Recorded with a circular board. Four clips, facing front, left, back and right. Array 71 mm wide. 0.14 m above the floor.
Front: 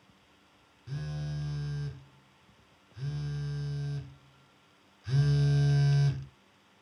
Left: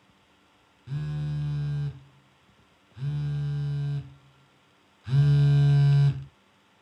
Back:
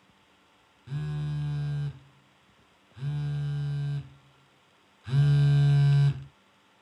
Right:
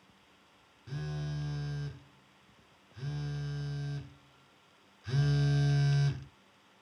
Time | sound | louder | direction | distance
0.9 | a phone buzzing | left 6 dB, back 4 dB | 145° left | 1.6 m